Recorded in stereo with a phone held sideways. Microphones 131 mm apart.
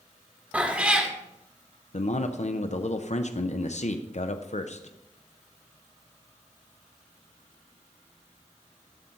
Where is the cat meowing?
10° right (ahead or behind), 1.1 m.